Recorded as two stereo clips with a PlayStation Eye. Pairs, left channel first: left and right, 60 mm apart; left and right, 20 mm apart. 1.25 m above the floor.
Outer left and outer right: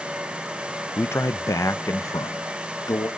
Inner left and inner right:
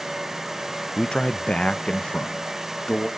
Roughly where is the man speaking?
Left.